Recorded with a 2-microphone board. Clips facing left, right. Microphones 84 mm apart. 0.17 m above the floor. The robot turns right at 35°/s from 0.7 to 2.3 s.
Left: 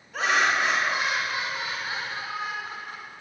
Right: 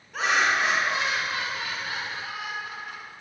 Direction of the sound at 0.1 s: Straight ahead.